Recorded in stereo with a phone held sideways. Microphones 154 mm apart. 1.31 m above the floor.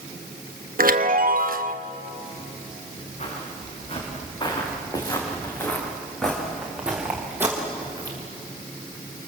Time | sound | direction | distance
0.8 | a chime | 65° right (ahead or behind) | 1.0 m
3.2 | footsteps | 45° left (ahead or behind) | 6.5 m